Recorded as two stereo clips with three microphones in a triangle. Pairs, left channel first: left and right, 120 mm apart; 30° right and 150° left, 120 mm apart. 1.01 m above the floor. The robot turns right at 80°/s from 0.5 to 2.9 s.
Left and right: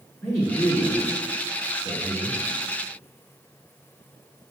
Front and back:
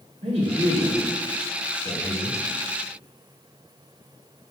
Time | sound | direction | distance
0.2 | a man speaking | 155° left | 2.5 m